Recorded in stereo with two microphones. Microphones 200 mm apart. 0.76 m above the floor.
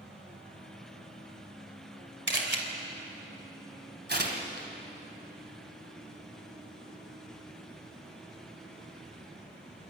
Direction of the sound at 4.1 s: 55° right (ahead or behind).